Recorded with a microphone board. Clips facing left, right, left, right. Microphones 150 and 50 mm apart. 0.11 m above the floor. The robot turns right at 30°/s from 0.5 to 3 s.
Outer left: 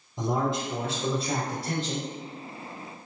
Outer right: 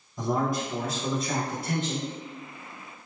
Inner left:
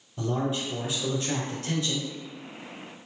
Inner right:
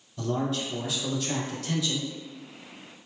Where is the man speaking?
45° left, 1.7 m; by 2.1 s 90° left, 1.7 m.